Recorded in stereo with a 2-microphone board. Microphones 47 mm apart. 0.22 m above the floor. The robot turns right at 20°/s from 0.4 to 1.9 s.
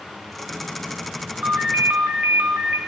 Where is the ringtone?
45° right (ahead or behind), 1.3 m; by 2.8 s 50° right (ahead or behind), 1.3 m.